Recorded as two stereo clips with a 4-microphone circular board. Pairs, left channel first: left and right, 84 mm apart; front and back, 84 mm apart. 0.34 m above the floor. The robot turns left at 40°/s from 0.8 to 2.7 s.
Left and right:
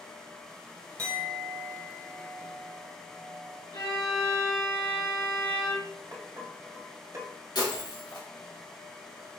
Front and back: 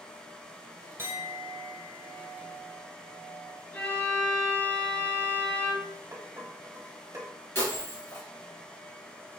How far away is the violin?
About 2.5 m.